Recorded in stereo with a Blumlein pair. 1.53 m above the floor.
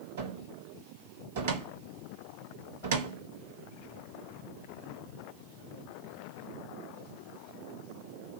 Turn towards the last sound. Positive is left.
turn(degrees=-60)